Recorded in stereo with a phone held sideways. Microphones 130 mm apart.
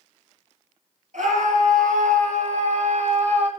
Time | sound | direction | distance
1.1 | a scream | 80° right | 8 m